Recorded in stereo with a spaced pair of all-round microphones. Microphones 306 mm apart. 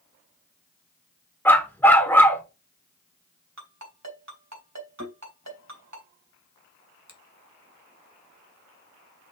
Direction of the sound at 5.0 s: 65° right (ahead or behind).